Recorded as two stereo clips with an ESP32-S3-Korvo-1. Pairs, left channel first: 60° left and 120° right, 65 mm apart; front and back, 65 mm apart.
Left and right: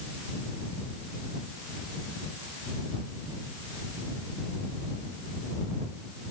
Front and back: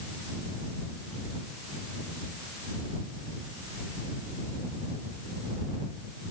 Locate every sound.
Only background noise.